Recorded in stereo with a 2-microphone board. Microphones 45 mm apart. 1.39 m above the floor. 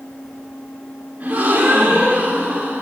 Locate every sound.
1.2 s a gasp: 35° right (ahead or behind), 4.5 m